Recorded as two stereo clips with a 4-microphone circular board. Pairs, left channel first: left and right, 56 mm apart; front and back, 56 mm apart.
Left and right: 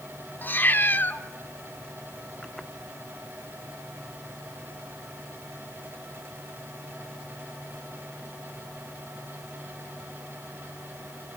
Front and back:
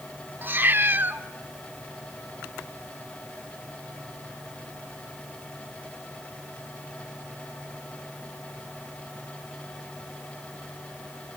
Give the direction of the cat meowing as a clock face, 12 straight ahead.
7 o'clock.